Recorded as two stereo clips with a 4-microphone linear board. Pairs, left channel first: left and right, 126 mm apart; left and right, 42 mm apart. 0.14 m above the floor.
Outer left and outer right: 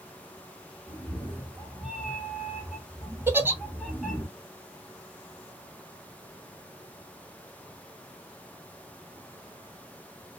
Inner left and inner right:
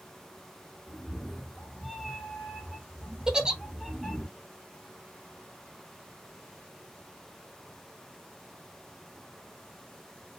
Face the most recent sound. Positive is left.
turn(degrees=-15)  # may be behind; listen again after turning